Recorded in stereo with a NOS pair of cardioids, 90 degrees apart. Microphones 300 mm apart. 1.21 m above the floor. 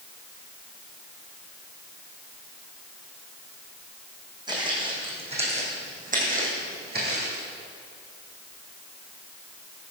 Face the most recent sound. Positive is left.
turn(degrees=-40)